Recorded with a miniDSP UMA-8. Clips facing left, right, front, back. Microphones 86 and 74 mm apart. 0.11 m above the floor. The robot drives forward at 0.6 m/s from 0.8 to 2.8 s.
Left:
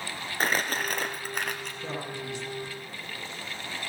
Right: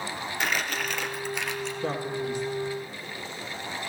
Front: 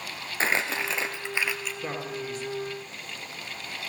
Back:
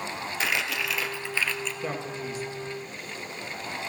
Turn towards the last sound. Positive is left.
turn(degrees=-110)